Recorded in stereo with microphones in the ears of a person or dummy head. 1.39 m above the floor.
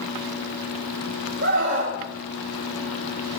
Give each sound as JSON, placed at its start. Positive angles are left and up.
{"t": 1.4, "sound": "a scream", "side_deg": -80, "distance_m": 4.0}